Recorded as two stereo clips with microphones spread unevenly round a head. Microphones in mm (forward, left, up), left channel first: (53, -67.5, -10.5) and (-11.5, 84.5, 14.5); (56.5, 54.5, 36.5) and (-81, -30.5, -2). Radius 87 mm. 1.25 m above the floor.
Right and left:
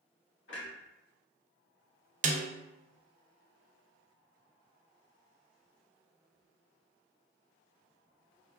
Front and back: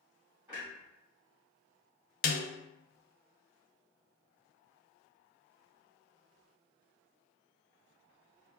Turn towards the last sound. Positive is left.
turn(degrees=65)